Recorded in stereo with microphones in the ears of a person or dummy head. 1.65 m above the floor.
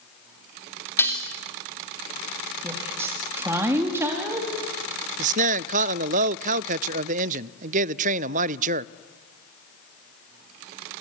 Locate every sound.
1.0 s dishes clattering: 10° left (ahead or behind), 2.5 m
2.6 s a woman speaking: 10° right (ahead or behind), 3 m
5.2 s a man speaking: 40° right (ahead or behind), 0.5 m